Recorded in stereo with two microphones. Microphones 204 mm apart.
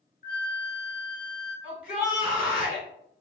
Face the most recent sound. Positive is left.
turn(degrees=-5)  # may be behind; listen again after turning